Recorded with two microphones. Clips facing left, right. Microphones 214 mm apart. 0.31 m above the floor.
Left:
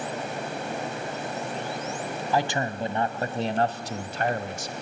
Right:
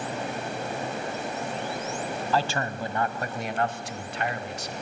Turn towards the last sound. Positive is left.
turn(degrees=45)  # may be behind; listen again after turning